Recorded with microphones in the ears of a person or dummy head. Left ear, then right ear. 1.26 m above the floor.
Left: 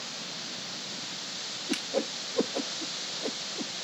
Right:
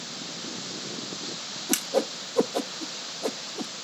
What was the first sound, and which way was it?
A whoosh, 35° right (ahead or behind).